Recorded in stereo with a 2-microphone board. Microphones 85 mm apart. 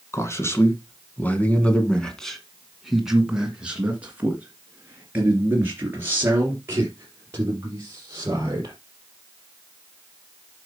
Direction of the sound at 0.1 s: 35° left (ahead or behind).